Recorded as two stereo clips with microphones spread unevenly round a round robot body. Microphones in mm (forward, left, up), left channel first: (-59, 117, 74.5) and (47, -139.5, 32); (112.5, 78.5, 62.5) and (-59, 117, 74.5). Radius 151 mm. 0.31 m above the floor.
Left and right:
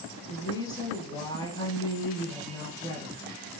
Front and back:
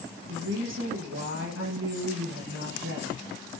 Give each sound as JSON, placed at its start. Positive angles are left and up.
{"t": 0.3, "sound": "a woman speaking", "azimuth_deg": -170, "distance_m": 6.0}